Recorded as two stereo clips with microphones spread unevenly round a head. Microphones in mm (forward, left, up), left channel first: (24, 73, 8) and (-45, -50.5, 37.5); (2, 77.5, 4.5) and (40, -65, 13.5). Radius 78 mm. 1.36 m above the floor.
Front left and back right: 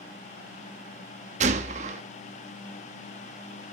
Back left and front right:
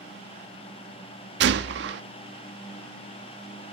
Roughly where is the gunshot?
Right.